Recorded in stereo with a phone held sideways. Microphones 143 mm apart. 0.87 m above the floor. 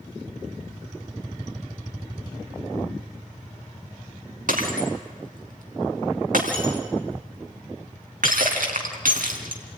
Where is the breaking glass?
75° right (ahead or behind), 3.5 m.